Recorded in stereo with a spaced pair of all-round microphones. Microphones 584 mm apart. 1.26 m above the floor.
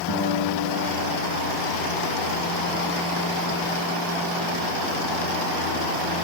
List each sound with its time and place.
0.1 s a guitar: 50° left (ahead or behind), 4.5 m